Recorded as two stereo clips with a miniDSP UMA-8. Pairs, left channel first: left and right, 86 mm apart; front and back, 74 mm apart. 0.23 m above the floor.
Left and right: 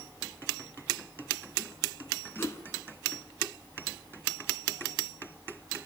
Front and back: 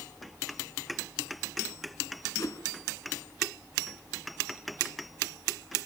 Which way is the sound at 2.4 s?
35° left.